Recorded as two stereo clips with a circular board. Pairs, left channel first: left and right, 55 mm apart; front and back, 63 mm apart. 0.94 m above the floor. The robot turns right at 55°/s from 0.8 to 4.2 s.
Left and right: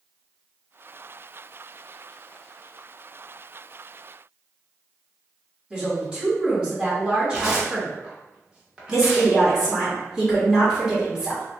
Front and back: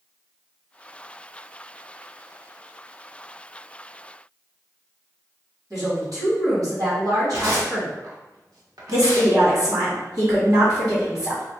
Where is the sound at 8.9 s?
165° right, 1.9 m.